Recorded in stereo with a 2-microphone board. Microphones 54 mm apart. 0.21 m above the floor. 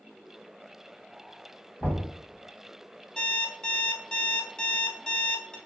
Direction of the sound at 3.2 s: 15° left (ahead or behind).